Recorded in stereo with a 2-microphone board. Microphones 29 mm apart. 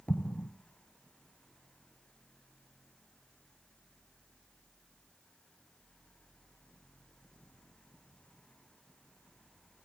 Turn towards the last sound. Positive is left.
turn(degrees=50)  # may be behind; listen again after turning